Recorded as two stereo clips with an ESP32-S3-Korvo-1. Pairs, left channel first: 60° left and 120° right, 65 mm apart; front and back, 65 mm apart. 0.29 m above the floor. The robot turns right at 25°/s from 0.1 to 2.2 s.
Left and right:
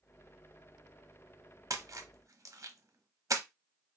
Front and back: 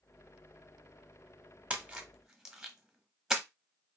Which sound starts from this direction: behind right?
A splash, at 1.7 s.